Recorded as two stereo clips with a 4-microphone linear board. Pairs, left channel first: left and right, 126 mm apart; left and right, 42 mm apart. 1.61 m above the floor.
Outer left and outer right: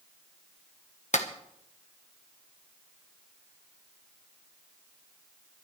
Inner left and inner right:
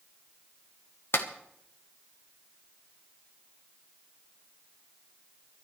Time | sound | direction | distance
1.1 | a clap | 70° left (ahead or behind) | 1.3 m